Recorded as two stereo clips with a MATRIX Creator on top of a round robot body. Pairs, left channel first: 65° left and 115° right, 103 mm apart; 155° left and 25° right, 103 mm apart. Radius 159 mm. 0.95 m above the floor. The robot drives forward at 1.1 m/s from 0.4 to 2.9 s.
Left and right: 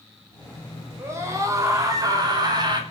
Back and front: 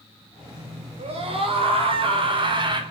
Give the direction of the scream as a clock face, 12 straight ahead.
2 o'clock.